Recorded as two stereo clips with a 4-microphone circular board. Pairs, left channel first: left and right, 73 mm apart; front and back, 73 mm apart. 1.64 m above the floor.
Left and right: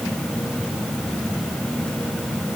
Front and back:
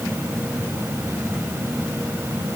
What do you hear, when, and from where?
Only background noise.